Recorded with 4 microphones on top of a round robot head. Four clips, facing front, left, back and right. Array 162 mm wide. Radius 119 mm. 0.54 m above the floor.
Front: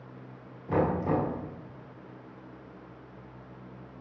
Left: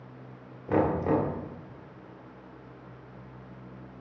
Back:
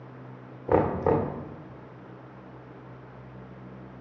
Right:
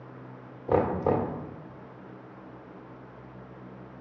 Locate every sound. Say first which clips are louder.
0.7 s knocking: even, back 4 dB; 155° right, 2.0 m